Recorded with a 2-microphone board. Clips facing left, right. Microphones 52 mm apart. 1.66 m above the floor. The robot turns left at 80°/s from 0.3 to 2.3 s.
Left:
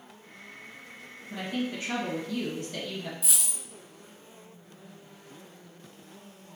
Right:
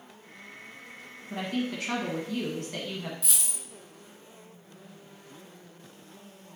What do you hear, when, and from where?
1.3 s a woman speaking: 45° right, 1.6 m; by 3.1 s 125° right, 1.6 m
3.2 s a dropped coin: 5° left (ahead or behind), 1.6 m